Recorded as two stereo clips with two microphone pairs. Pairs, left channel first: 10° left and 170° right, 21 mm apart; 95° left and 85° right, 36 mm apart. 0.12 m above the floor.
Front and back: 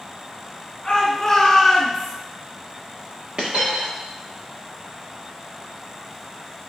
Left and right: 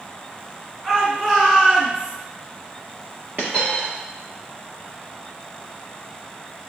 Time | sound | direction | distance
0.8 | a shout | 15° right | 1.2 m
3.4 | a dropped coin | 135° right | 1.5 m